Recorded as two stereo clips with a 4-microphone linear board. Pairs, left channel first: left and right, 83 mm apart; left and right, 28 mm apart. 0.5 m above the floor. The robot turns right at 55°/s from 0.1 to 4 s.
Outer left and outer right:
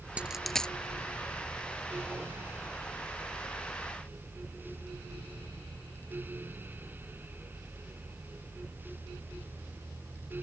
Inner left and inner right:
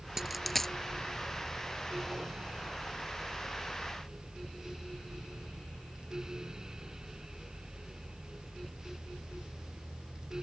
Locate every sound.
0.2 s a dropped coin: 15° right (ahead or behind); by 0.7 s 15° left (ahead or behind)